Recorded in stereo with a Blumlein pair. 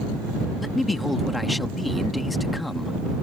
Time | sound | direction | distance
0.6 | a man speaking | 5° left | ?